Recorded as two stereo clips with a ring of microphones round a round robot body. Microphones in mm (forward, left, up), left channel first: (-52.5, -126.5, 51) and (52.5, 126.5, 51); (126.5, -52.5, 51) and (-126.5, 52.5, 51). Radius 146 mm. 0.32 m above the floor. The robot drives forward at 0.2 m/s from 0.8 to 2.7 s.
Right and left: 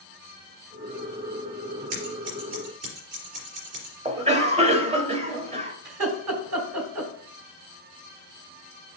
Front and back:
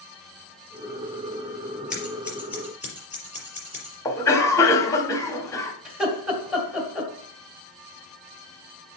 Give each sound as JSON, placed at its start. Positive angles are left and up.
{"t": 1.9, "sound": "scissors", "azimuth_deg": 70, "distance_m": 4.0}
{"t": 4.0, "sound": "a cough", "azimuth_deg": 40, "distance_m": 1.0}
{"t": 5.8, "sound": "laughter", "azimuth_deg": 70, "distance_m": 2.5}